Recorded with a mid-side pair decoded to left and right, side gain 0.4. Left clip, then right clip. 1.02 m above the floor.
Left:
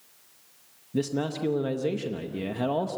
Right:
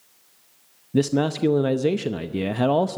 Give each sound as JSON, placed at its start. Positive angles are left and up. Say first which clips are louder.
{"t": 0.9, "sound": "a man speaking", "louder": "right 7 dB", "azimuth_deg": -55, "distance_m": 0.7}